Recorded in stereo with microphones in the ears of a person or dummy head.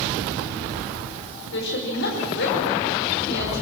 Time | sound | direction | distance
1.5 | a woman speaking | 60° left (ahead or behind) | 4.5 m